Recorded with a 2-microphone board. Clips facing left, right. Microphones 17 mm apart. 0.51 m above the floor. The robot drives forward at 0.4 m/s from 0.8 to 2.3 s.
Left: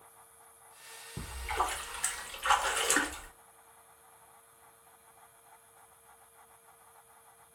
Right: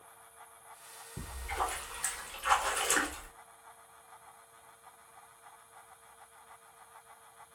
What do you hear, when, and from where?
1.2 s a splash: 40° left (ahead or behind), 0.9 m; by 3.3 s 30° left (ahead or behind), 1.3 m